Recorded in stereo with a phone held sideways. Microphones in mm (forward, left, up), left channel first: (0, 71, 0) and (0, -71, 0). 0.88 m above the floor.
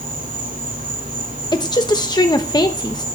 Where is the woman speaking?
30° left (ahead or behind), 1.0 m.